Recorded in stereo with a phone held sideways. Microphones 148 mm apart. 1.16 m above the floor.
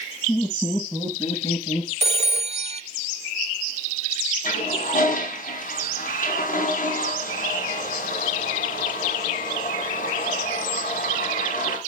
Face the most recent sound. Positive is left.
turn(degrees=65)  # may be behind; listen again after turning